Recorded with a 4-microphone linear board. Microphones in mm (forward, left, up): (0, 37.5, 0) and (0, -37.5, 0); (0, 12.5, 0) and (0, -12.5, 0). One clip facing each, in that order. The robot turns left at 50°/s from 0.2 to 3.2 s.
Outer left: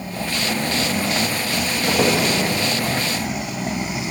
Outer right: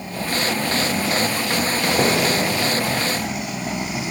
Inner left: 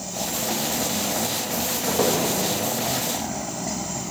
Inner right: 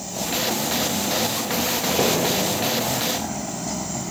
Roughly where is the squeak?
Centre.